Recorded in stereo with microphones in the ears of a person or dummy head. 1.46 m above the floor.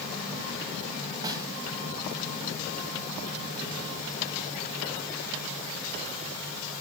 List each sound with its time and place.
1.2 s a snare drum: 20° right (ahead or behind), 3 m